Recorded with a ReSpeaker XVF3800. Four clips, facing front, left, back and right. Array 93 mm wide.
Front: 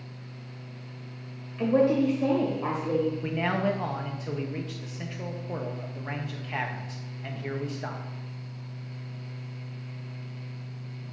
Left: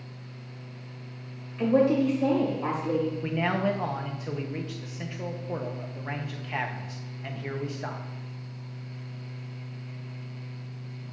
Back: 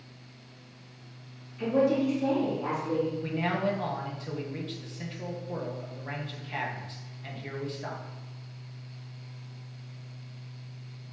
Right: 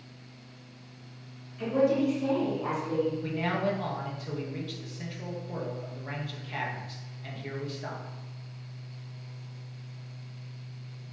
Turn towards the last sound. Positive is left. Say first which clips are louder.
# left 3 dB, front 2 dB
turn(degrees=50)